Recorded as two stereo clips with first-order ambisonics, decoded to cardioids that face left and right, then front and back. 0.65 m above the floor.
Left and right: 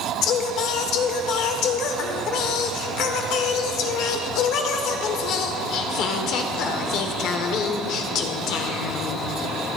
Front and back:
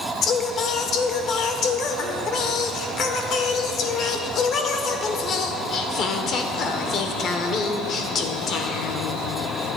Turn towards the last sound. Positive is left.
turn(degrees=55)